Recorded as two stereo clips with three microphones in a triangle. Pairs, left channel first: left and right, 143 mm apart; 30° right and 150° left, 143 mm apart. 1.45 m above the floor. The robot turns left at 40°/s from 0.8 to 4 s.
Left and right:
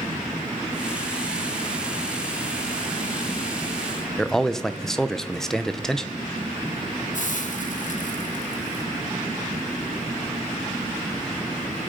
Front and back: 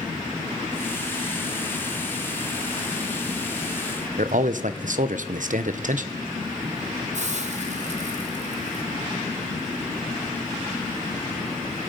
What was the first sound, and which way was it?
A man speaking, 175° left.